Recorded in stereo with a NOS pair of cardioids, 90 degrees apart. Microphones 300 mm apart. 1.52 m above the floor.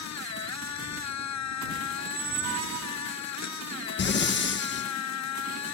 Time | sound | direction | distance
0.0 | a machine running | 60° left | ?
2.0 | a squeak | 65° right | ?
4.0 | breathing | 35° left | ?